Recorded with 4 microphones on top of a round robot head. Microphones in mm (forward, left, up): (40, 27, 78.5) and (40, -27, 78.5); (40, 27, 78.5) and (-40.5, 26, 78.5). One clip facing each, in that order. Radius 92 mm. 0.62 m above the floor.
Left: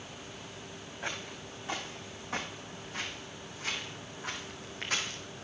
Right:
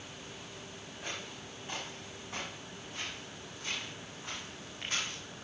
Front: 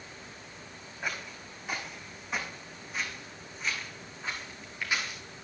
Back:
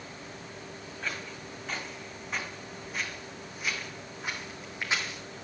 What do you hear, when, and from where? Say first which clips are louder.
1.0 s footsteps: left 4 dB, front 1 dB; 75° left, 3.5 m; by 5.2 s 115° left, 2.5 m